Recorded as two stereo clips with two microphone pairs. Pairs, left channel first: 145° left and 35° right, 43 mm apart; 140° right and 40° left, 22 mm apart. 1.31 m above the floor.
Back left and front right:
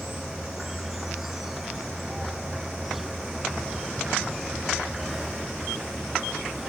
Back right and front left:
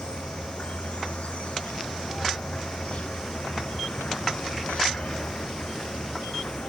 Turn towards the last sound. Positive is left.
turn(degrees=-120)